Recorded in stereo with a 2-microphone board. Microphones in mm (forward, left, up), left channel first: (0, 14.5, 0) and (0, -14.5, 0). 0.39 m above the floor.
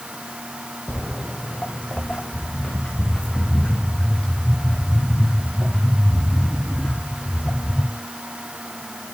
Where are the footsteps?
45° left (ahead or behind), 0.8 m; by 7.8 s 35° left (ahead or behind), 5 m.